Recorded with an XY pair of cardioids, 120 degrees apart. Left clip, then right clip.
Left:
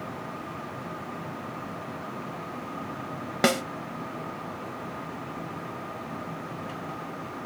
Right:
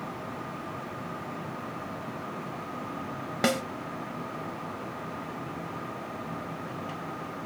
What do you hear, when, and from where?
3.4 s a snare drum: 20° left, 1.0 m